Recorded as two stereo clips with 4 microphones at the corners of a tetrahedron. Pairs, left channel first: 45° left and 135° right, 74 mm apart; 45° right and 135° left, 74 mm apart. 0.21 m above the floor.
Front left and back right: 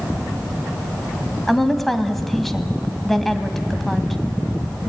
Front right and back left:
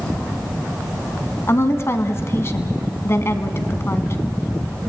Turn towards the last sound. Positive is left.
turn(degrees=-40)